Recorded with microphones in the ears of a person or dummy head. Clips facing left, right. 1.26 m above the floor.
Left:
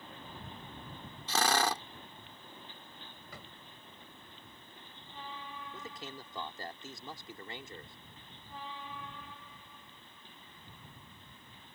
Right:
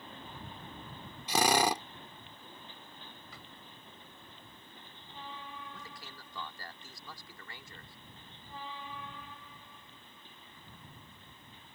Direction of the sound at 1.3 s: 15° right (ahead or behind).